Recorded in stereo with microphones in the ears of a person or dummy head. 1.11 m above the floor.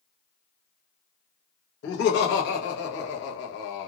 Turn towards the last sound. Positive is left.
turn(degrees=70)  # may be behind; listen again after turning